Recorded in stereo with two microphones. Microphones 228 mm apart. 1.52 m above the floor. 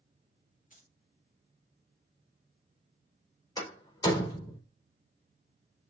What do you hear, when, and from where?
0.7 s keys jangling: 35° left (ahead or behind), 2 m
3.6 s a door slam: 15° left (ahead or behind), 4 m